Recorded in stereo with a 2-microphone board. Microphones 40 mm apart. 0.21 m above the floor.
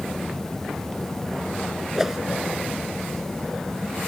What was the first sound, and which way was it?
A whoosh, 10° right (ahead or behind).